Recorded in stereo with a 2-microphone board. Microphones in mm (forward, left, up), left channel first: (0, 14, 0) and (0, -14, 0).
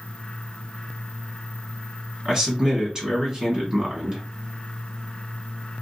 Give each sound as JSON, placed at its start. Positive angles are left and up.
{"t": 2.2, "sound": "a man speaking", "side_deg": -25, "distance_m": 1.7}